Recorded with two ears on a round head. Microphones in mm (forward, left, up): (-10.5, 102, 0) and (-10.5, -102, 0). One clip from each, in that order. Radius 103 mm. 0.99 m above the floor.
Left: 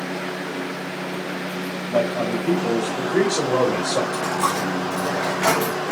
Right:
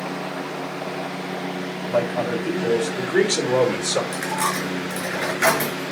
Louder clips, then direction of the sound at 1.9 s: Even; 85° right.